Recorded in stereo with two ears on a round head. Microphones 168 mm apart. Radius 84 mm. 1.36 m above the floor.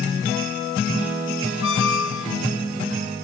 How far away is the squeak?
About 0.9 m.